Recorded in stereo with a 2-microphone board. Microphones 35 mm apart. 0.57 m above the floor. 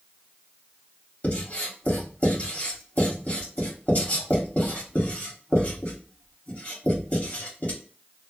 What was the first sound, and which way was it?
Writing, 40° left (ahead or behind).